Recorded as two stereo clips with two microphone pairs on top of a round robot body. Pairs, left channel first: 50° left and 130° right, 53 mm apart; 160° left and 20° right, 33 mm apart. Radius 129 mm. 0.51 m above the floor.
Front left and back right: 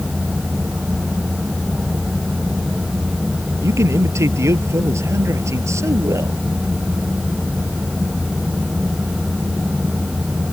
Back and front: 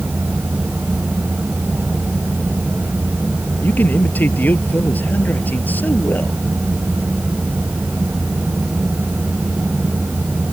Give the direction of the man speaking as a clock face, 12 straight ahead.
5 o'clock.